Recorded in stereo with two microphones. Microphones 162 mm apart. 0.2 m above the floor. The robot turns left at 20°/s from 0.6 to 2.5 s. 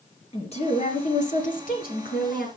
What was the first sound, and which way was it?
A woman speaking, 140° left.